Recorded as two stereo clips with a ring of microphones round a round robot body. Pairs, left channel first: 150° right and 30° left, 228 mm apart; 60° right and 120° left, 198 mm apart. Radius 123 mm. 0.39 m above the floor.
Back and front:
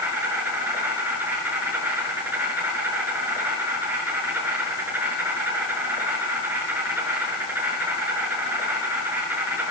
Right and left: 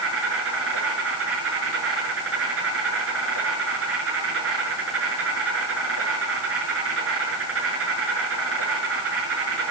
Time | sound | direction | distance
0.0 | an insect | 110° left | 5.5 m